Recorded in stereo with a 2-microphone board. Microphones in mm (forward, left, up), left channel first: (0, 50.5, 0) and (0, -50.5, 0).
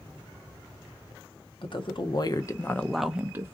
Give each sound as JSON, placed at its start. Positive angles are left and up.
{"t": 1.6, "sound": "a woman speaking", "side_deg": 60, "distance_m": 0.8}